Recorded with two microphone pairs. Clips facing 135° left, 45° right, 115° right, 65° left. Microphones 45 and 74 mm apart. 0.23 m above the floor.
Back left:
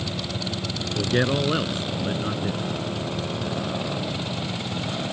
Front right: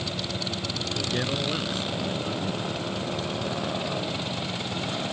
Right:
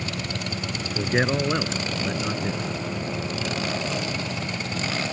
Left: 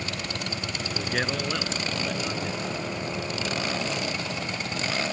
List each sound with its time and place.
1.0 s a man speaking: 175° right